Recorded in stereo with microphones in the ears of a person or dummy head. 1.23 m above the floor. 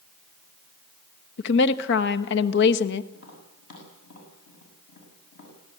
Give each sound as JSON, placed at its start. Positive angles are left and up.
{"t": 1.4, "sound": "a woman speaking", "side_deg": 70, "distance_m": 1.2}
{"t": 3.1, "sound": "tapping", "side_deg": 55, "distance_m": 6.5}